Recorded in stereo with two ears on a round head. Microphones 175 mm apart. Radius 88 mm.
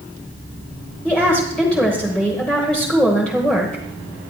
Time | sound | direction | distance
1.1 | a woman speaking | 5° left (ahead or behind) | 1.3 m